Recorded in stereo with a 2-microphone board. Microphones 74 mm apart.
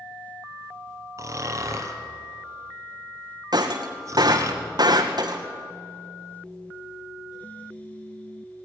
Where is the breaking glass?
70° right (ahead or behind), 2 m.